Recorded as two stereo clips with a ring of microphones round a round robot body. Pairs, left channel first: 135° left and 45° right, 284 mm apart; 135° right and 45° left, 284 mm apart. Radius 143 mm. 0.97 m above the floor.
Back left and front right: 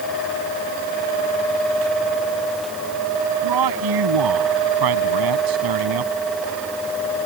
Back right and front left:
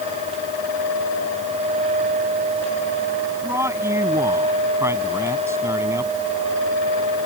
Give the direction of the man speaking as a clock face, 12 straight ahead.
1 o'clock.